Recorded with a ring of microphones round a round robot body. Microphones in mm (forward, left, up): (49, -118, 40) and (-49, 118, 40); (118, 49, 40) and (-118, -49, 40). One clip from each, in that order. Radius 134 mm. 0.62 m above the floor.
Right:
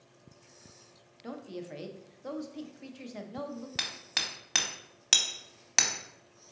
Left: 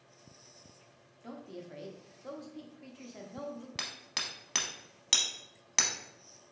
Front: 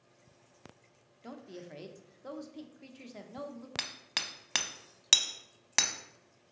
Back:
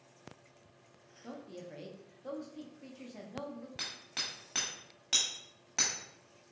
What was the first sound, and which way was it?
A woman speaking, 15° right.